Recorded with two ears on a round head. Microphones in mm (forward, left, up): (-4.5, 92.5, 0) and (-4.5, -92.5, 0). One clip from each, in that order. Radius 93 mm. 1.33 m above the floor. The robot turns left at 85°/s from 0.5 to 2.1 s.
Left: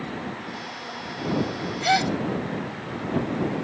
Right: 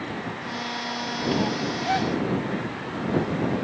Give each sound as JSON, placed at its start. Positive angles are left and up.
{"t": 1.8, "sound": "a gasp", "side_deg": 60}